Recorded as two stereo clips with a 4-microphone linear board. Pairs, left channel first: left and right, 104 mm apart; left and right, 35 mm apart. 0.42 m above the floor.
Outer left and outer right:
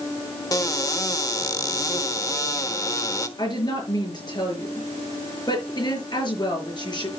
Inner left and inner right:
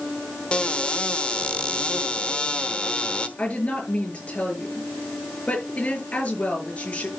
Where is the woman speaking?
45° left (ahead or behind), 6 m.